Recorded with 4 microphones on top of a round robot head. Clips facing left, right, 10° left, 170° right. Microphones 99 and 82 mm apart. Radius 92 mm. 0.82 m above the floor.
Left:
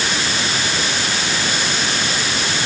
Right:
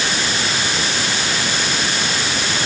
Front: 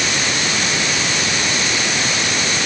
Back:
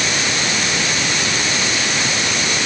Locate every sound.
Only background noise.